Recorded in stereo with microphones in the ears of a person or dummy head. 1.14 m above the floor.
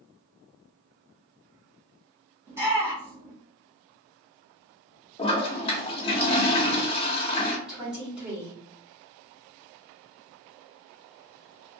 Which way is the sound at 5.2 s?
30° left (ahead or behind).